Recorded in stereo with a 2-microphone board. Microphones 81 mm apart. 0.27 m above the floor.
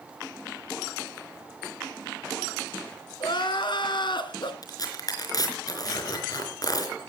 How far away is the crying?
About 1.8 m.